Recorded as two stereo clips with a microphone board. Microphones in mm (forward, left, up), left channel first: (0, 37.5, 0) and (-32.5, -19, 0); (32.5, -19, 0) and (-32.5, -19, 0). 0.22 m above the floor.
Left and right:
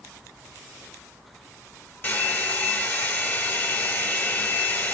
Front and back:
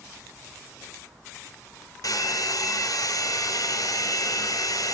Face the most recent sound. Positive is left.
turn(degrees=5)